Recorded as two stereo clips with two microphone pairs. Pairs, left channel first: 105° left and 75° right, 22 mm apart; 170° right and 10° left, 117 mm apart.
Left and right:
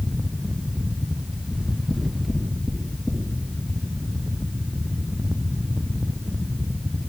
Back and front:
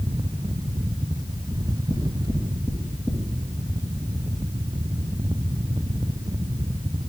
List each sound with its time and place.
1.5 s knocking: 70° left, 2 m